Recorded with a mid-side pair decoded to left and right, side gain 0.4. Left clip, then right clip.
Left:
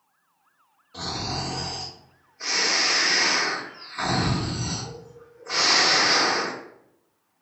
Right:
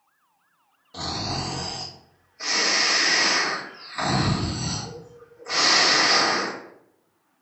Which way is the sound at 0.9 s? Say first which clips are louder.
Right 1 dB; 65° right.